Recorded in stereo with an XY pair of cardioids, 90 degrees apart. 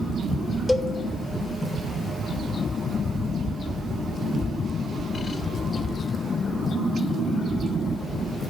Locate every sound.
0.7 s a cowbell: 20° left, 0.8 m